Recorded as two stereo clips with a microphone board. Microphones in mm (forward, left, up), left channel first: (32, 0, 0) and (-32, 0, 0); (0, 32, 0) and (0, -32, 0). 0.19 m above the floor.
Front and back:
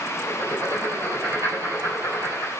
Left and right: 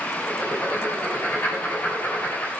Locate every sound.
0.2 s writing: 150° left, 4 m